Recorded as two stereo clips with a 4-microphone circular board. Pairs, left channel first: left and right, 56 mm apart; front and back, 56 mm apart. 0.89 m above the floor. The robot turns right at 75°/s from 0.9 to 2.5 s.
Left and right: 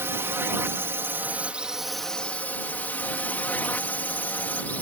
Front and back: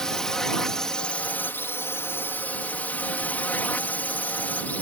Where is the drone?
75° right; by 4.8 s 45° left.